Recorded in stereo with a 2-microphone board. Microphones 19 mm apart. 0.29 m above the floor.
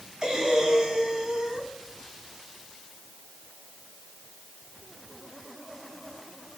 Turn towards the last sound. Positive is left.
turn(degrees=-40)  # may be behind; listen again after turning